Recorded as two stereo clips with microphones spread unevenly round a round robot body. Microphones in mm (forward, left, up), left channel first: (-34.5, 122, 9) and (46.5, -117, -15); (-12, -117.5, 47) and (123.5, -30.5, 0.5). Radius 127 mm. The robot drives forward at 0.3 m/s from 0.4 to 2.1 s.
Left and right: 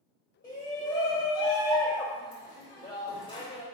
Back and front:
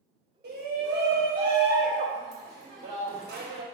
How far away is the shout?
About 3.5 m.